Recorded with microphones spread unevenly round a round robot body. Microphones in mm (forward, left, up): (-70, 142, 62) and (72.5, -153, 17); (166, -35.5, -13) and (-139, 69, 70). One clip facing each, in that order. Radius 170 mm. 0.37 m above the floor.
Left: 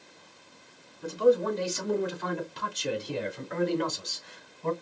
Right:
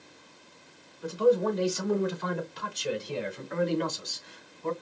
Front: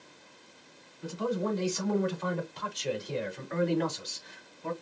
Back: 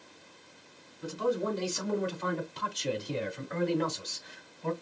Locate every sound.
1.0 s a man speaking: straight behind, 4 m; by 4.7 s 140° left, 2.5 m